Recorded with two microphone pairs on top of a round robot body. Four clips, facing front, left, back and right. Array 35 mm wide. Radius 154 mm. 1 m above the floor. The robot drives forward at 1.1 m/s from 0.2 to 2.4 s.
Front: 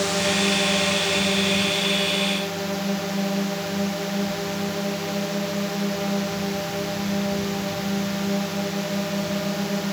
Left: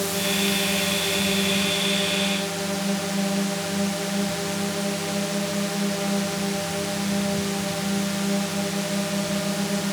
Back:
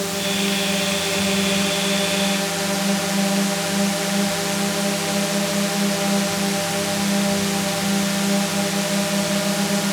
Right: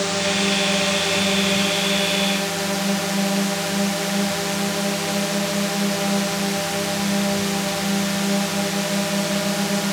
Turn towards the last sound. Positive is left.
turn(degrees=-135)